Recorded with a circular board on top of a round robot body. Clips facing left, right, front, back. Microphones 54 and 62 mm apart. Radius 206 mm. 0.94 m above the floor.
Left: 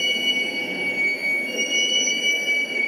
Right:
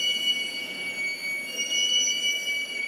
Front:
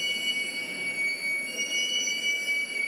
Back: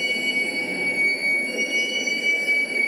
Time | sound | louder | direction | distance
0.0 | a vehicle | left 5 dB, back 7 dB | 140° left | ?